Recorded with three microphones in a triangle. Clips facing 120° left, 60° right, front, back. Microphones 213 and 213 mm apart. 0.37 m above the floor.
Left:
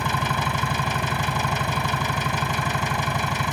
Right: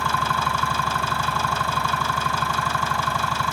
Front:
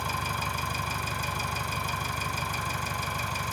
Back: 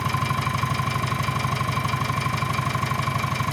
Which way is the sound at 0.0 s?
170° right.